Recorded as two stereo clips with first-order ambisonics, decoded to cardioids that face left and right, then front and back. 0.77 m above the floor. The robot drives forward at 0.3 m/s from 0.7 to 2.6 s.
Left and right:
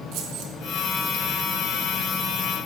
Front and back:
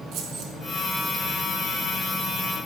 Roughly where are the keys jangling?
Behind right.